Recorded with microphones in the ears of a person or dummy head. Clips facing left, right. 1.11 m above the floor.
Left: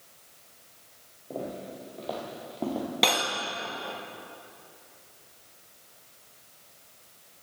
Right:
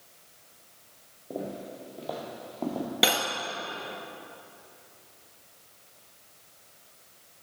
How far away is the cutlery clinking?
About 0.7 m.